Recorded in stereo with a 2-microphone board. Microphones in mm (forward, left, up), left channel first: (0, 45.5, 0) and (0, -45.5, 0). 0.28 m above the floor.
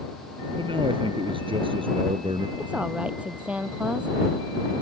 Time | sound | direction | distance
0.6 | a man speaking | 70° right (ahead or behind) | ?
2.6 | a woman speaking | 15° right (ahead or behind) | ?